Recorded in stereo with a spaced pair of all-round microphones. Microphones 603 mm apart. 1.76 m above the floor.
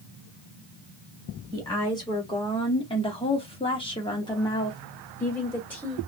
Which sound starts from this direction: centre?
A woman speaking, at 1.5 s.